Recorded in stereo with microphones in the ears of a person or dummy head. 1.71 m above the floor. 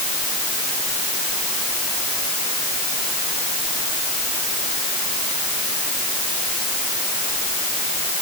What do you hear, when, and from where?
Only background noise.